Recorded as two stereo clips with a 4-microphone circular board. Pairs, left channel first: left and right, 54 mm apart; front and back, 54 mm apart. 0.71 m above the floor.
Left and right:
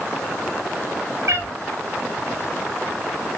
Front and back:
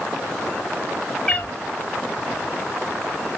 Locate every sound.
1.3 s a cat meowing: 80° right, 1.7 m